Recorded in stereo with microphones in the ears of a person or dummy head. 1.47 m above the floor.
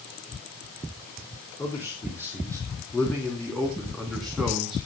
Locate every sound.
1.6 s a man speaking: 15° left (ahead or behind), 5 m; by 4.8 s 5° right (ahead or behind), 3 m